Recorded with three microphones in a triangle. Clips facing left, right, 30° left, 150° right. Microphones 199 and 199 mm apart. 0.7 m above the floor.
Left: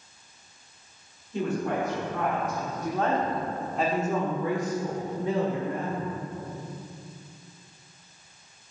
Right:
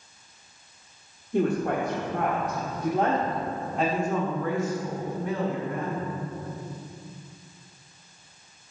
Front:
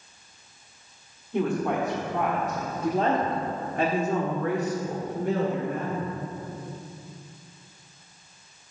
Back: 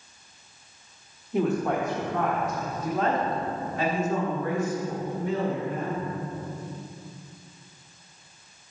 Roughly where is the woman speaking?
Ahead right.